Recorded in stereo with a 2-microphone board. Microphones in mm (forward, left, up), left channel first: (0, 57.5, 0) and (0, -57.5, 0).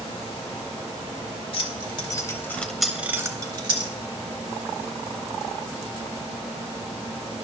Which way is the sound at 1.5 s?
50° left (ahead or behind).